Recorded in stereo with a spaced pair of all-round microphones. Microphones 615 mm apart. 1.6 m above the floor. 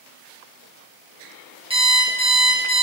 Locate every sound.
1.7 s an alarm clock: 10° right (ahead or behind), 0.7 m